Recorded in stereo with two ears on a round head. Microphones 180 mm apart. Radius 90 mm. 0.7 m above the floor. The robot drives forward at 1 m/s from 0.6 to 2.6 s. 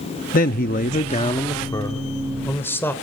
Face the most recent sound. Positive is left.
turn(degrees=10)  # may be behind; listen again after turning